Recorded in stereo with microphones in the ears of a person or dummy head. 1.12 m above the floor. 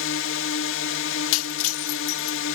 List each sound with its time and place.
0.0 s a drone: 65° left (ahead or behind)
1.3 s breaking glass: 80° left